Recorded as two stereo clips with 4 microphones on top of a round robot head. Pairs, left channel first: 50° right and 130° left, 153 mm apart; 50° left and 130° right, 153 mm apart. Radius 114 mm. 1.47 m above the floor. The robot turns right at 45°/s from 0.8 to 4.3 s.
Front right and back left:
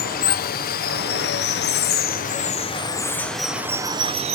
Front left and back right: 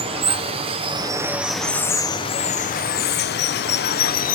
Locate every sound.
0.0 s running water: 75° right, 0.8 m; by 4.3 s 80° left, 0.8 m